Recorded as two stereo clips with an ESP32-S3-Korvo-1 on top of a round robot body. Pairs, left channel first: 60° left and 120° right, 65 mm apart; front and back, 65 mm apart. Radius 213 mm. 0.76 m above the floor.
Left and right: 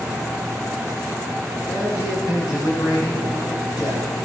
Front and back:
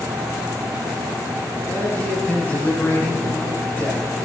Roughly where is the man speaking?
Ahead left.